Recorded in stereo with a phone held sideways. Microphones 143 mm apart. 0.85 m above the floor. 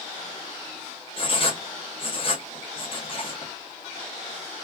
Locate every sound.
1.2 s writing: 40° left (ahead or behind), 0.9 m